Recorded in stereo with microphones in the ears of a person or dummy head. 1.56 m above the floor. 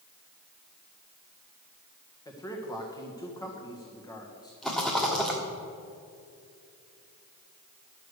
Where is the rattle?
Centre (ahead or behind), 1.4 m.